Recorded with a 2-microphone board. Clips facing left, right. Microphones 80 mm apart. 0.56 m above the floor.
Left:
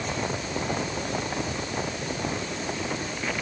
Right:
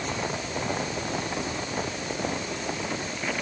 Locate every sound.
Only background noise.